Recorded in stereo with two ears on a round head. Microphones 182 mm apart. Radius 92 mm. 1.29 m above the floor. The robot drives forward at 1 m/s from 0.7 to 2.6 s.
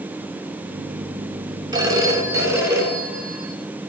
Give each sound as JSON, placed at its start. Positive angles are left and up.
{"t": 1.7, "sound": "a phone ringing", "side_deg": -20, "distance_m": 1.8}